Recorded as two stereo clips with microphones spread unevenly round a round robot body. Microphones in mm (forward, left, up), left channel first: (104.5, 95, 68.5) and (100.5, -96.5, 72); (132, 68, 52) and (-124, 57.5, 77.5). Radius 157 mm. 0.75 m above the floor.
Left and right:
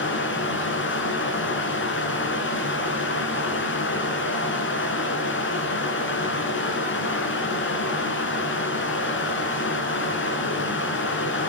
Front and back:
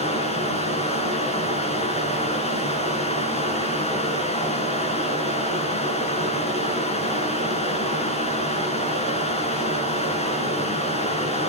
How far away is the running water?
About 4.5 m.